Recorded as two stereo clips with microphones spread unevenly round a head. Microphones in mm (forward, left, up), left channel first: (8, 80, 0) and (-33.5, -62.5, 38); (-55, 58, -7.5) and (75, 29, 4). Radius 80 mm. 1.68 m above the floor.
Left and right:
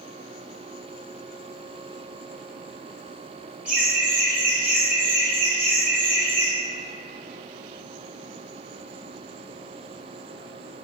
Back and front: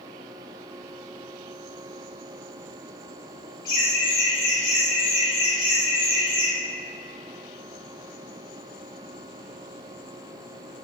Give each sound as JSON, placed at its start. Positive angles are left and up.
{"t": 3.6, "sound": "laughter", "azimuth_deg": 160, "distance_m": 1.4}